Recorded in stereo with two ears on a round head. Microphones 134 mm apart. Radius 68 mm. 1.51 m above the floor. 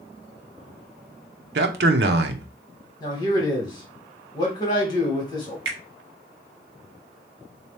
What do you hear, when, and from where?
1.6 s a man speaking: 75° right (ahead or behind), 0.7 m
3.0 s a man speaking: 25° left (ahead or behind), 2 m
5.7 s a finger snap: 80° right, 1.5 m